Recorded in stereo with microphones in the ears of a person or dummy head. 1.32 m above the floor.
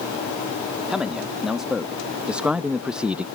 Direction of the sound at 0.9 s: 5° right (ahead or behind).